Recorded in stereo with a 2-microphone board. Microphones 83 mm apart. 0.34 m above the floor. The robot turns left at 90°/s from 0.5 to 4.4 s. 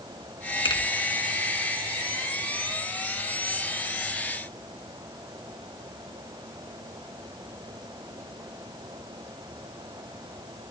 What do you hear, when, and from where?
0.7 s a finger snap: 75° left (ahead or behind), 2.5 m; by 0.8 s 65° left (ahead or behind), 2.5 m